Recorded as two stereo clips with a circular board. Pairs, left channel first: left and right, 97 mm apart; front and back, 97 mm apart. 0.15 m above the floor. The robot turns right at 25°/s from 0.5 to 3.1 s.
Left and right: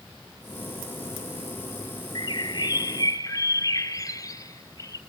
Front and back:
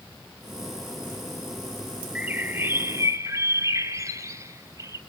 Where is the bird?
110° left, 0.8 m; by 5.0 s 130° left, 0.8 m.